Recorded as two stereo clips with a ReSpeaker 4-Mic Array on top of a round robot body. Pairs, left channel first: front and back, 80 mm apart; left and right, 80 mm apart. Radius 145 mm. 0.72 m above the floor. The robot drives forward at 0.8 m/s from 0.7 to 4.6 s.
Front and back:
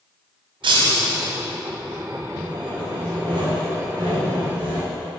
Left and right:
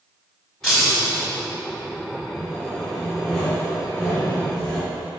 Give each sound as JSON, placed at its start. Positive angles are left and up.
{"t": 0.6, "sound": "breaking glass", "azimuth_deg": 175, "distance_m": 0.6}
{"t": 2.4, "sound": "sawing", "azimuth_deg": 175, "distance_m": 1.7}